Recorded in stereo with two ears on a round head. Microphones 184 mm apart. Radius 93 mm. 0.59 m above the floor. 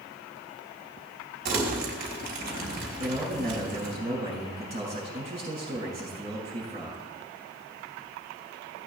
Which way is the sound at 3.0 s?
30° right (ahead or behind).